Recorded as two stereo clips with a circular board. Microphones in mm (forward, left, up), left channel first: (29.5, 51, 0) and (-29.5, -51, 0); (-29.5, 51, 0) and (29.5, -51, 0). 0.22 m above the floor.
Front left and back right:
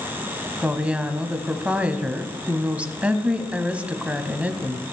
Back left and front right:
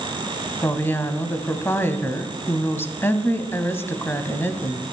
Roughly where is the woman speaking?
Behind.